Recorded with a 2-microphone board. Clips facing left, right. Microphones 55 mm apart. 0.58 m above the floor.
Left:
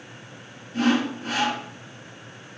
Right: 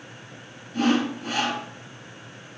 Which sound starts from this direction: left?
Sawing, at 0.7 s.